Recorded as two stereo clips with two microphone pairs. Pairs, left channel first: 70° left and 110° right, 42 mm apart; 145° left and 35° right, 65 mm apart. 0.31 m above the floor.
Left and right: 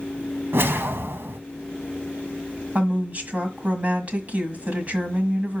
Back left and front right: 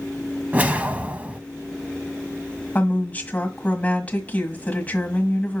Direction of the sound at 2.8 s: 155° right.